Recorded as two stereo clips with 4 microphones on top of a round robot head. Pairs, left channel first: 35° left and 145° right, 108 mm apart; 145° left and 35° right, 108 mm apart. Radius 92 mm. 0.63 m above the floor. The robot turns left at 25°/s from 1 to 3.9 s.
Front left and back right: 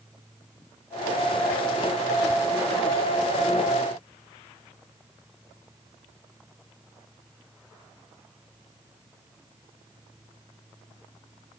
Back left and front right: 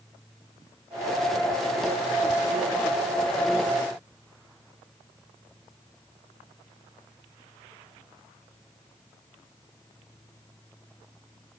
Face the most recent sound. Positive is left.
No sound to turn to.